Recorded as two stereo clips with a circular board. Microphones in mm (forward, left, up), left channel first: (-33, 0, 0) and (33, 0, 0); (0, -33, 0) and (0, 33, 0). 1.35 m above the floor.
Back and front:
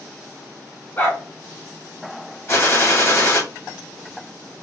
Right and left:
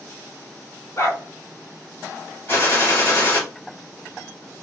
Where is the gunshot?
140° right, 1.6 m.